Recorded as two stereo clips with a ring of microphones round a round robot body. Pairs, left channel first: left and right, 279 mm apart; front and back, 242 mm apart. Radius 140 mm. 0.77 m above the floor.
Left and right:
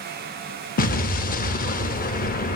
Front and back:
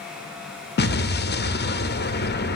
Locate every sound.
0.8 s an explosion: 35° left, 0.8 m